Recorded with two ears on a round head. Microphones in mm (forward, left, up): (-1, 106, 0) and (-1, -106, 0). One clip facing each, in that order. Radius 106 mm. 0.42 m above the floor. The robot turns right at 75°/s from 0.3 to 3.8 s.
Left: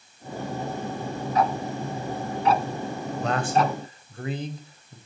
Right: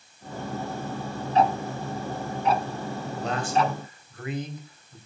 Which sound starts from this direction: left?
A man speaking, at 3.2 s.